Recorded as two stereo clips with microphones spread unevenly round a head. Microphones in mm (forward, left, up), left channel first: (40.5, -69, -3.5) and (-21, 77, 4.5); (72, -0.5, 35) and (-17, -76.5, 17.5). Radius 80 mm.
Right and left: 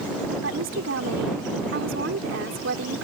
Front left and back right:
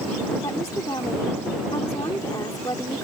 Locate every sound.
0.4 s a woman speaking: 110° left